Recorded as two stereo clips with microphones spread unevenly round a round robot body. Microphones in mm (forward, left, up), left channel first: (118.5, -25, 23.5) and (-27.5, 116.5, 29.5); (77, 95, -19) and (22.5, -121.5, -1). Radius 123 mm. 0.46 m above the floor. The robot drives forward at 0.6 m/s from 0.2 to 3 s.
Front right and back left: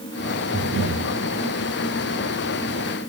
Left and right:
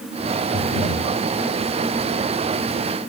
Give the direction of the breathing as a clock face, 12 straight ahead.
9 o'clock.